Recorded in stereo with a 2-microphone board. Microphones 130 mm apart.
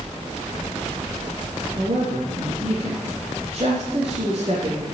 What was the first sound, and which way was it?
A woman speaking, 45° right (ahead or behind).